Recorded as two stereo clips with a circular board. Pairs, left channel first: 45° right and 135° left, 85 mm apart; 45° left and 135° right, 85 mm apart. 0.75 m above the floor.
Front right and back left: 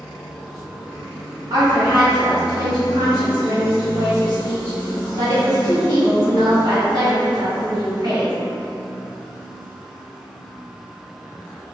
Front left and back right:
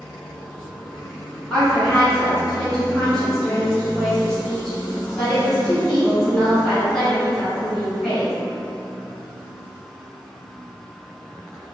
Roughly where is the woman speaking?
Behind left.